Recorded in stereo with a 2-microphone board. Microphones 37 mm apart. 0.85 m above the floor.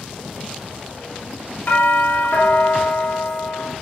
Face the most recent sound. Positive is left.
turn(degrees=65)  # may be behind; listen again after turning